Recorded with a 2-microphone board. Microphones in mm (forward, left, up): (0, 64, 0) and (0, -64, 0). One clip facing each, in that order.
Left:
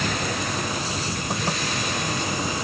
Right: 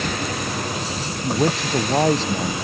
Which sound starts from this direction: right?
A man speaking, at 1.2 s.